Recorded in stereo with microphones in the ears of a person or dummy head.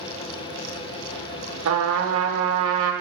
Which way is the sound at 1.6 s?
75° right (ahead or behind).